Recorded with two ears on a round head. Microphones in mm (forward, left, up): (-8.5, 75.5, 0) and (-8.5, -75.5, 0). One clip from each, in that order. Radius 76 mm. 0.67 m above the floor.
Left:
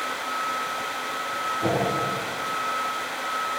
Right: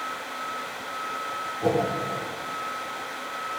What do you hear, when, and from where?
1.6 s a whoosh: 10° right (ahead or behind), 1.9 m